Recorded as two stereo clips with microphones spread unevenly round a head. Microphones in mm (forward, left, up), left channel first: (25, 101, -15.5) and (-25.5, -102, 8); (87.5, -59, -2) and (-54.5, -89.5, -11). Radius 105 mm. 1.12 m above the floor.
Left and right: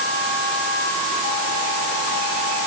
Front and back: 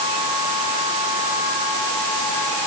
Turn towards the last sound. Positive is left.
No sound to turn to.